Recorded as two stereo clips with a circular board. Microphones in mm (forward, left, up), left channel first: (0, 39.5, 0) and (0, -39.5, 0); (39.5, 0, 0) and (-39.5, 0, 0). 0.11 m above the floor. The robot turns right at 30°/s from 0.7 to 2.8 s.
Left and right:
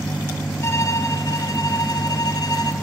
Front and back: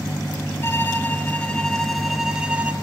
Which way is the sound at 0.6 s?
50° left.